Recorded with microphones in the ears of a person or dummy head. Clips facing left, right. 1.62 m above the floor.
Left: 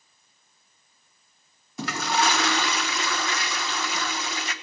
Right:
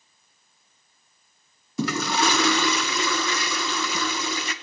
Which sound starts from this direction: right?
A toilet flushing, at 1.8 s.